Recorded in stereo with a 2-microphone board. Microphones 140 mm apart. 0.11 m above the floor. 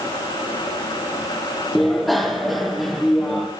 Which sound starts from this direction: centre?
A bicycle bell, at 1.8 s.